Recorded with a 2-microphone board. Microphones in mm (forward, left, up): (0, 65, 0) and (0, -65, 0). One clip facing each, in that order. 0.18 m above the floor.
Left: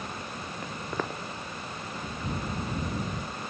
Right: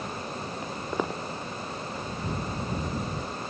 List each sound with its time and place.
0.6 s footsteps: 15° right (ahead or behind)